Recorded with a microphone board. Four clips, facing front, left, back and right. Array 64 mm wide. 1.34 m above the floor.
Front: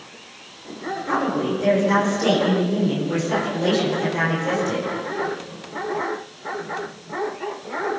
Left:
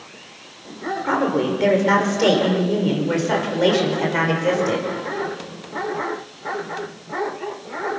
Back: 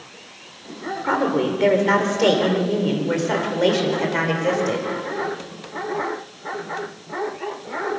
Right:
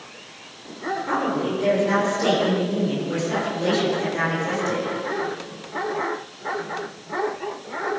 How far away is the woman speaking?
About 5.5 m.